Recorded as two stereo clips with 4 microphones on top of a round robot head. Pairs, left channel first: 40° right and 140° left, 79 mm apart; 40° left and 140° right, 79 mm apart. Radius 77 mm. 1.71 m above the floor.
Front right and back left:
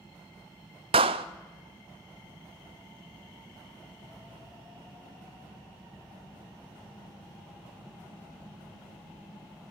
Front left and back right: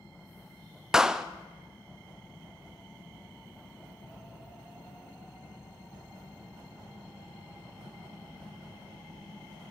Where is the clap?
135° left, 0.5 m.